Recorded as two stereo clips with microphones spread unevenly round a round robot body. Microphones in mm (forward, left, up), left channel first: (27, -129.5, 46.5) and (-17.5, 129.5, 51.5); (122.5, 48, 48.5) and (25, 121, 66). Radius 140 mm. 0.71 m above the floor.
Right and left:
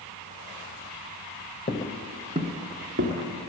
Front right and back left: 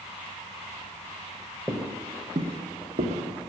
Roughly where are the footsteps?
Behind right.